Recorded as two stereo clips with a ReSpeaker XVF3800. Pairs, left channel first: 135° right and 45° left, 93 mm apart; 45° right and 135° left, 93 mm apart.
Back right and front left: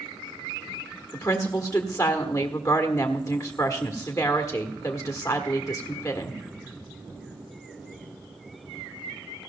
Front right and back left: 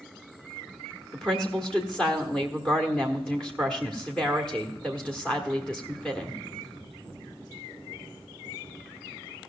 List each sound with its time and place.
1.1 s a woman speaking: 120° right, 1.4 m